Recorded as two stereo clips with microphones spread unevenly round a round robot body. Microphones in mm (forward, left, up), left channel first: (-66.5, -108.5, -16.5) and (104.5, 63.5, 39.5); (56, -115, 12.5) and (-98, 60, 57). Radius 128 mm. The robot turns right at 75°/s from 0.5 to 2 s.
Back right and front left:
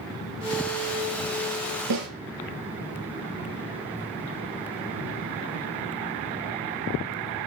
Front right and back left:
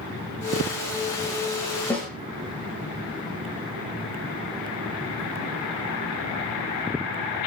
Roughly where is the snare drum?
Ahead left.